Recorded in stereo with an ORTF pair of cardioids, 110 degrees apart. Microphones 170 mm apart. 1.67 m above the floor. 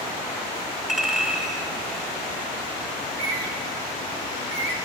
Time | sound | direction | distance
0.9 | a clink | straight ahead | 2 m
3.0 | a bird | 60° right | 1.5 m